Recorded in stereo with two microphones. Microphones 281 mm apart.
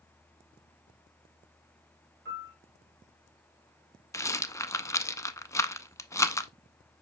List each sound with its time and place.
2.2 s a piano: 40° right (ahead or behind), 2.5 m
4.1 s a rattle: 10° left (ahead or behind), 0.5 m